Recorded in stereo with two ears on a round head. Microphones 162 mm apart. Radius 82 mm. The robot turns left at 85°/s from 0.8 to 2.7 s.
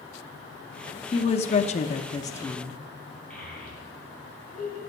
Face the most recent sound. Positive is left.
turn(degrees=5)  # may be behind; listen again after turning